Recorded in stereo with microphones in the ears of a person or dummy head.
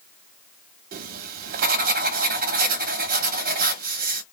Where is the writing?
55° right (ahead or behind), 0.7 m.